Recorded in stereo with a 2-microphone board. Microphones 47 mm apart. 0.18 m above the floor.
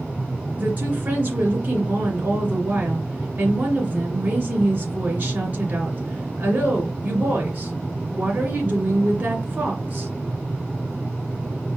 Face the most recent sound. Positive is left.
turn(degrees=-40)  # may be behind; listen again after turning